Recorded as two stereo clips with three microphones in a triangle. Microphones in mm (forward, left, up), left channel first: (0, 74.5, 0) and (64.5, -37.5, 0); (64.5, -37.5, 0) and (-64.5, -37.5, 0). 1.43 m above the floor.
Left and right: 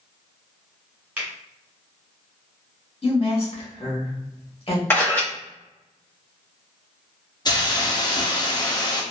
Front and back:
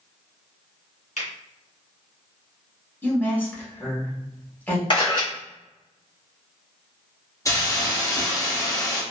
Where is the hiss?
60° left, 0.6 m.